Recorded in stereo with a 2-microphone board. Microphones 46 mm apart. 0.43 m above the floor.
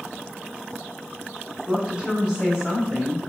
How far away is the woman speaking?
About 1.2 m.